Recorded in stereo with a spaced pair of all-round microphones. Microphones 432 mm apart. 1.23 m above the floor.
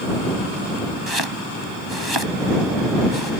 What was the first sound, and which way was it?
Chopping, 65° right (ahead or behind).